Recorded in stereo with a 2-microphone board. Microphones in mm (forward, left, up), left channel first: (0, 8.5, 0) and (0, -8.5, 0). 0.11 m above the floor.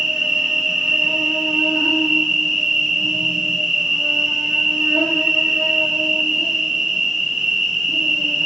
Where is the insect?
75° right (ahead or behind), 1.9 m.